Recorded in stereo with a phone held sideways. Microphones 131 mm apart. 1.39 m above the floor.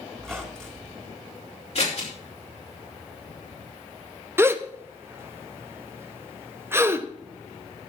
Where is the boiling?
No boiling in this recording.